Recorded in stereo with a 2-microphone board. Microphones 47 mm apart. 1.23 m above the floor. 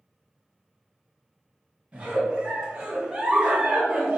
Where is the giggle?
20° right (ahead or behind), 0.9 m.